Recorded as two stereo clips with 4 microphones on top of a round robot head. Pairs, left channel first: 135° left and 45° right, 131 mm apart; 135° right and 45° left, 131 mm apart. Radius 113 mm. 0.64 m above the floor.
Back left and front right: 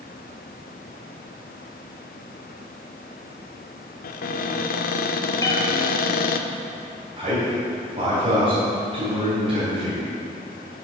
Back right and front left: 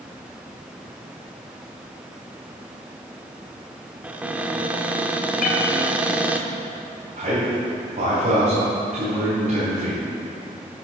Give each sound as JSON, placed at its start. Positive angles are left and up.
{"t": 4.0, "sound": "a cupboard door", "azimuth_deg": 125, "distance_m": 0.6}
{"t": 5.4, "sound": "a cat meowing", "azimuth_deg": -160, "distance_m": 1.6}
{"t": 7.2, "sound": "a man speaking", "azimuth_deg": 5, "distance_m": 3.5}